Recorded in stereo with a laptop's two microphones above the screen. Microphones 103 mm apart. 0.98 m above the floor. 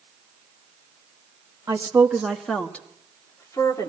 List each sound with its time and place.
1.7 s a woman speaking: 30° right (ahead or behind), 1.2 m; by 3.9 s 35° left (ahead or behind), 2.5 m